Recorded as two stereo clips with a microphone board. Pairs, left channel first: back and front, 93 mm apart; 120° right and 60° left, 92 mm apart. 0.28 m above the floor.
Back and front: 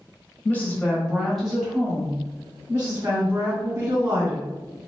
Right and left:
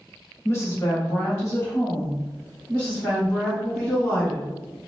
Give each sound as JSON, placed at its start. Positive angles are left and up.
{"t": 0.5, "sound": "a woman speaking", "azimuth_deg": -130, "distance_m": 1.2}